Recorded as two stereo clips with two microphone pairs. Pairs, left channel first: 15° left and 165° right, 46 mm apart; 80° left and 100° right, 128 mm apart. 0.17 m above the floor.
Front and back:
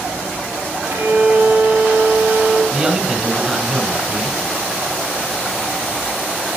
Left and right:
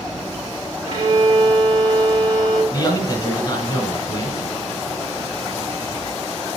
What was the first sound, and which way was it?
A violin, 155° right.